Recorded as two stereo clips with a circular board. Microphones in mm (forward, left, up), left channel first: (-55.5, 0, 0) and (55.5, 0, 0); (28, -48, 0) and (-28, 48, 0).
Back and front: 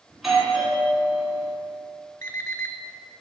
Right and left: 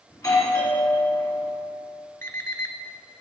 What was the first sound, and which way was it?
A doorbell, 85° right.